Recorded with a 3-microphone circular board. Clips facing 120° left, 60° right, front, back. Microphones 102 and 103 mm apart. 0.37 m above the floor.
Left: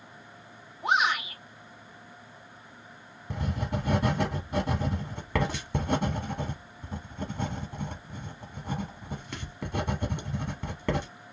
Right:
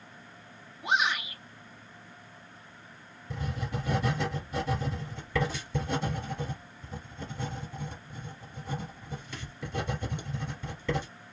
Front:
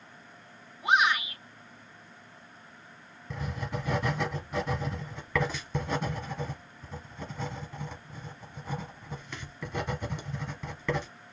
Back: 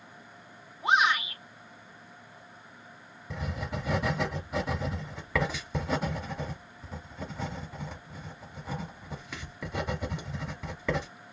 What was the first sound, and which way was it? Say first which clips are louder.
A shout: left 3 dB, even; 120° left.